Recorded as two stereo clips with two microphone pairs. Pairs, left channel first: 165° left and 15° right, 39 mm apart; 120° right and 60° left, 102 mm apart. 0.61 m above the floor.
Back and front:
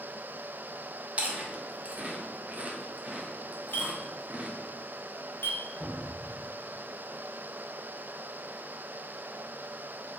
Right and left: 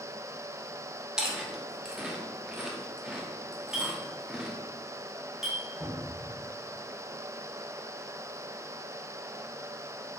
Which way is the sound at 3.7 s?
145° left.